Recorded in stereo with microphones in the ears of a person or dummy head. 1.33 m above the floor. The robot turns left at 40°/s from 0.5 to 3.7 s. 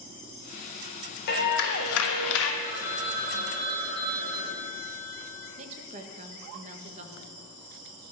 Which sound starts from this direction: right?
A woman speaking, at 5.6 s.